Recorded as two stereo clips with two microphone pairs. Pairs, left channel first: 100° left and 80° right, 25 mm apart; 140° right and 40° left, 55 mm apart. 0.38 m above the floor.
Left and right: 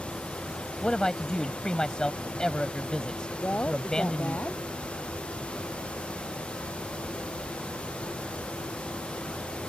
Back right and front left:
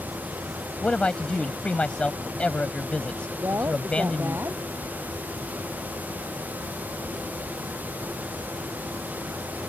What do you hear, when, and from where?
0.8 s a man speaking: 155° left
3.4 s a woman speaking: 85° left